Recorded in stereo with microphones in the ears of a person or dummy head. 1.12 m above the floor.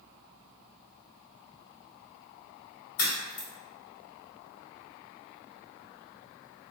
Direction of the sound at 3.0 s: 55° left (ahead or behind).